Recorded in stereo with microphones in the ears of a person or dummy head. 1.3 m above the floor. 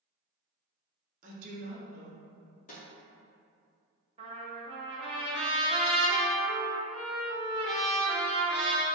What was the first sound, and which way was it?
A woman speaking, 40° right (ahead or behind).